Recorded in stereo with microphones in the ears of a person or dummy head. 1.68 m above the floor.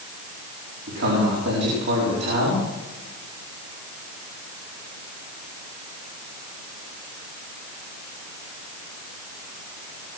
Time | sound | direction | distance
0.9 | a man speaking | 65° right (ahead or behind) | 4.5 m